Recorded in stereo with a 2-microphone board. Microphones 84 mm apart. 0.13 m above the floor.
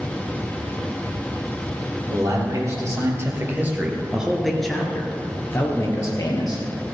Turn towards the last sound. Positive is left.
turn(degrees=50)  # may be behind; listen again after turning